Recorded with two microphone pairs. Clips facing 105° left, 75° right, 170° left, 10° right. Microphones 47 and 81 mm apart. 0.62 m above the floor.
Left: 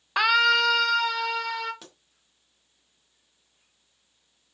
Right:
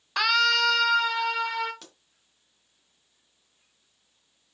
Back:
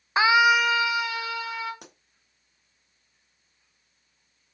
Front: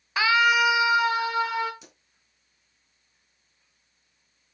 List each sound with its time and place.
0.2 s a scream: 160° left, 1.1 m; by 1.7 s straight ahead, 1.9 m
1.8 s a pop: 170° right, 2.5 m